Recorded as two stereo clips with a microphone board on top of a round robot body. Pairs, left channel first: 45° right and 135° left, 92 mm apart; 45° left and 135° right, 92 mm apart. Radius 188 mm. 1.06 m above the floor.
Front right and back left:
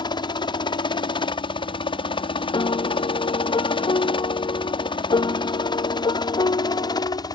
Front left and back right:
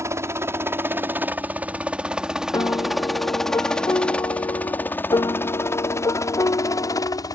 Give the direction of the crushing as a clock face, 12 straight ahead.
I don't hear crushing.